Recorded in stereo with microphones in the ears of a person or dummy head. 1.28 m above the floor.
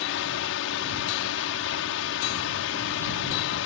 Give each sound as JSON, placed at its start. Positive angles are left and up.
{"t": 0.0, "sound": "a drone", "side_deg": 60}